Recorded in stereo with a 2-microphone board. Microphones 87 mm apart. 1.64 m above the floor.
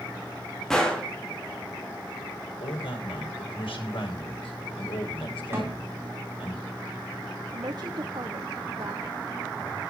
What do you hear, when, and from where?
0.7 s a gunshot: 5° left (ahead or behind), 4 m
2.6 s a man speaking: 75° left (ahead or behind), 6.5 m
5.5 s a snare drum: 30° right (ahead or behind), 7.5 m
7.5 s a woman speaking: 50° right (ahead or behind), 1.0 m